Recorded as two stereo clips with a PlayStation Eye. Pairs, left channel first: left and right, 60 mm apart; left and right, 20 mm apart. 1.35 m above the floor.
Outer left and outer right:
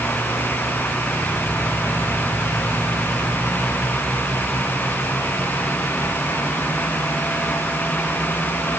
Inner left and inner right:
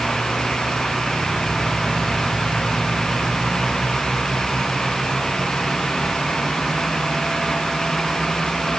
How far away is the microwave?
No microwave in this recording.